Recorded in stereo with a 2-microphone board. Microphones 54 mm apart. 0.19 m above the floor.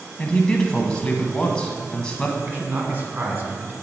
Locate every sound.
0.2 s a man speaking: 15° left (ahead or behind), 1.1 m
2.5 s a man speaking: 35° right (ahead or behind), 1.8 m